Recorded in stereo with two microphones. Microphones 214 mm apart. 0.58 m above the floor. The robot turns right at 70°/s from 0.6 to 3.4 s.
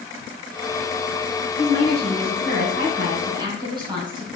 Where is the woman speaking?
150° right, 3.5 m; by 4.3 s 20° right, 3.5 m.